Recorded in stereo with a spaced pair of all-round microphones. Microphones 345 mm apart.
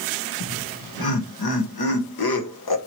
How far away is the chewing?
I don't hear chewing.